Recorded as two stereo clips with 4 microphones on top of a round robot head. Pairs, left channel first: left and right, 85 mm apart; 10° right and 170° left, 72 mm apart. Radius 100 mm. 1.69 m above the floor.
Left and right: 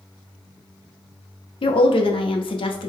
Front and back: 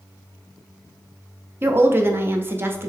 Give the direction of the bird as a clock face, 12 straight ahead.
No bird in this recording.